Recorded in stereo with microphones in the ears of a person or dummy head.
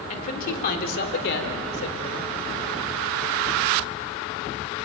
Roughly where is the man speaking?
Left.